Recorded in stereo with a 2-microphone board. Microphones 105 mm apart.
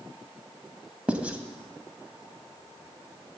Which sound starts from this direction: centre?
Writing, at 1.1 s.